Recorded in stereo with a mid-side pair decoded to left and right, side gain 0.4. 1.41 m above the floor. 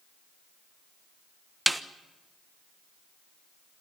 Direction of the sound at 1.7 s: 15° right.